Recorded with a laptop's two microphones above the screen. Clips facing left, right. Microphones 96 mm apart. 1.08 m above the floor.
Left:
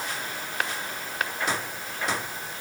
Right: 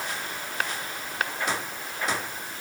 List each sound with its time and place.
Only background noise.